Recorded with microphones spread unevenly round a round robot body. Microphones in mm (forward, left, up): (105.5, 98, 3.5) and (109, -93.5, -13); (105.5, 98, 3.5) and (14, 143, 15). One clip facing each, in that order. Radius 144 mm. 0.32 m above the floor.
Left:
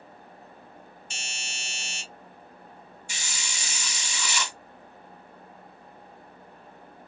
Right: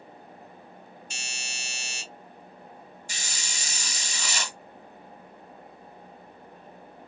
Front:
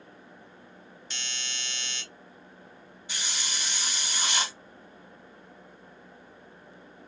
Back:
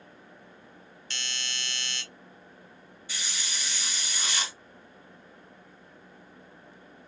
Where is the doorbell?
50° left, 1.8 m.